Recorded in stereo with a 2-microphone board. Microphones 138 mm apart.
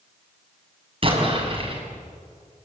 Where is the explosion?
40° right (ahead or behind), 6 m.